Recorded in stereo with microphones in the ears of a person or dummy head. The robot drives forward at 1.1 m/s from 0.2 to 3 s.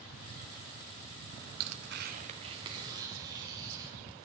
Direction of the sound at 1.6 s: 90° right.